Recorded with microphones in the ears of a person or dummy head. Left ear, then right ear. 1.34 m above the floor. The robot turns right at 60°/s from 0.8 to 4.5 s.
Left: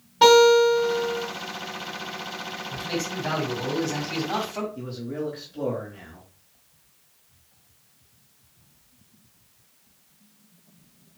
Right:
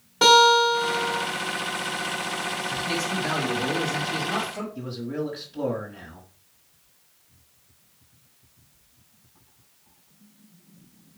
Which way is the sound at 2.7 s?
45° right.